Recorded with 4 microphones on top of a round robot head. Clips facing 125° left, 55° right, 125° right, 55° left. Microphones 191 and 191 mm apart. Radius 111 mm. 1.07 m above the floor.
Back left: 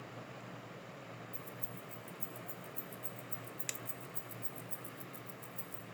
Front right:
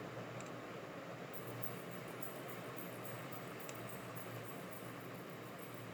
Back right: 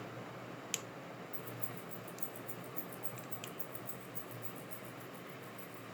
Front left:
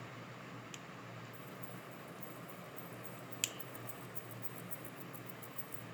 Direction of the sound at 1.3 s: 165° right.